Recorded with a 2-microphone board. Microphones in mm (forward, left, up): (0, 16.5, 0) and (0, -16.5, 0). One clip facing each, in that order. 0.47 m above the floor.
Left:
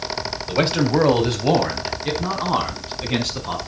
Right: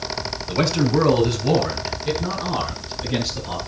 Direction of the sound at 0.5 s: 30° left (ahead or behind).